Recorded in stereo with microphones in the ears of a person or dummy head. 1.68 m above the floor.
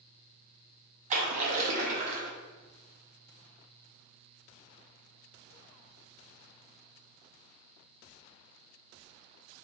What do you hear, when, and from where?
1.1 s a splash: 40° right (ahead or behind), 0.7 m